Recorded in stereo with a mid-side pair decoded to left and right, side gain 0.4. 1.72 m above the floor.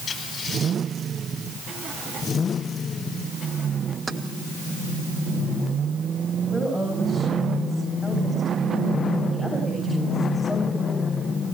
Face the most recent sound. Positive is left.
turn(degrees=5)